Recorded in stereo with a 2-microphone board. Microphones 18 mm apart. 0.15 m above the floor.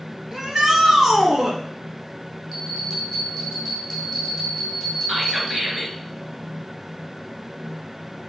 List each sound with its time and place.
0.3 s a shout: 35° right (ahead or behind), 2.0 m
2.5 s a bell: 5° right (ahead or behind), 4.5 m
5.1 s whispering: 25° right (ahead or behind), 2 m